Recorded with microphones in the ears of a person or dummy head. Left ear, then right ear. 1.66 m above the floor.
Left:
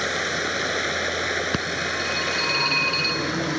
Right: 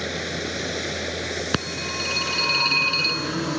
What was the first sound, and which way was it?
Running water, 45° left (ahead or behind).